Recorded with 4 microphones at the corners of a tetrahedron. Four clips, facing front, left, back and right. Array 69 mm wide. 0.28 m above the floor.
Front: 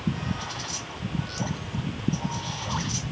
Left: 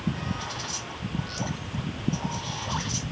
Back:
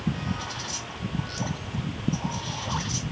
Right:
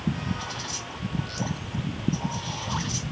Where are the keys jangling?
No keys jangling in this recording.